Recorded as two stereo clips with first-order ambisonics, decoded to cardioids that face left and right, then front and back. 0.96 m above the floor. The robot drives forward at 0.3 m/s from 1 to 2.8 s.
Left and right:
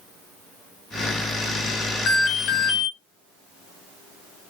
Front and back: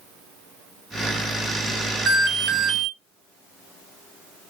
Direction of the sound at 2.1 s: 135° left.